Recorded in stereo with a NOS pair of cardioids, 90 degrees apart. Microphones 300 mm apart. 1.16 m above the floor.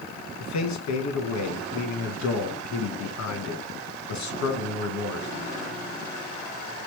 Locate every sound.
0.4 s a man speaking: 70° left, 1.3 m